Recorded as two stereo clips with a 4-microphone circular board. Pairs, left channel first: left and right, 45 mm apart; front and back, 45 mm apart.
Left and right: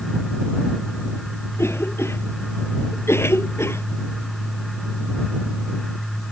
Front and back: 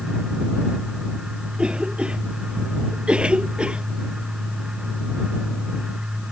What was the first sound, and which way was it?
A cough, 115° left.